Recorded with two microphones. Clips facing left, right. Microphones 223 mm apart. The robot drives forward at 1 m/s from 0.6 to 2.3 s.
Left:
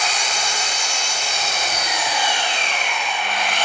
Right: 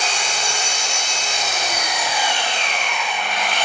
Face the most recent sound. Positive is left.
turn(degrees=-10)  # may be behind; listen again after turning